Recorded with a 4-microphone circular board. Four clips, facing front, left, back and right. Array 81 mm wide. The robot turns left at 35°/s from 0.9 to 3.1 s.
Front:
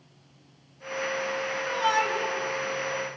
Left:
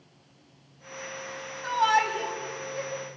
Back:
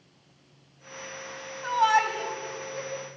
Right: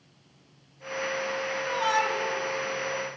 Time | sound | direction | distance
1.6 | a shout | 155° left | 4 m